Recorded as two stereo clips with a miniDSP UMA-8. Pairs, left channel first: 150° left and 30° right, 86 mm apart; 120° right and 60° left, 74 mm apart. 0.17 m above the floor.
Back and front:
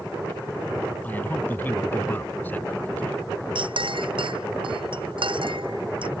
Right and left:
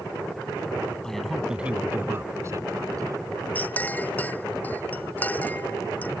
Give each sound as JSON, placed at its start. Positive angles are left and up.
{"t": 1.0, "sound": "a man speaking", "azimuth_deg": 170}
{"t": 3.5, "sound": "a clink", "azimuth_deg": -50}